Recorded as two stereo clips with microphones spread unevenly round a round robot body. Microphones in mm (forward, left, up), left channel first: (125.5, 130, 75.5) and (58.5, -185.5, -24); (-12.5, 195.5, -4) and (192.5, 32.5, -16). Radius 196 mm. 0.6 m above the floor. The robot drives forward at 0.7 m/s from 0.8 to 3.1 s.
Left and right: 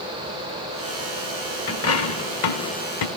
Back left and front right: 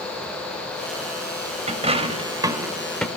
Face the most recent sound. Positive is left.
turn(degrees=55)